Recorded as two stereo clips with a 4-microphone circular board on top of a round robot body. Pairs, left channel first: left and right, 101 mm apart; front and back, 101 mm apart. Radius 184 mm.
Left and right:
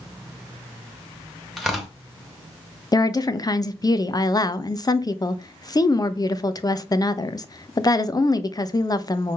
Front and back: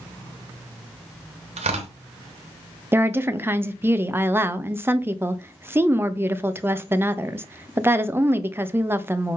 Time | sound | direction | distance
1.6 | tearing paper | straight behind | 2.5 m
2.9 | a woman speaking | 120° left | 1.3 m